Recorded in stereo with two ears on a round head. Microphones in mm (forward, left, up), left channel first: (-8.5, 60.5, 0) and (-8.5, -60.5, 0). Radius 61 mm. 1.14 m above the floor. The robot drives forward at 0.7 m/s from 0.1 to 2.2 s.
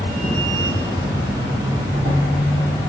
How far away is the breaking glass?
I don't hear breaking glass.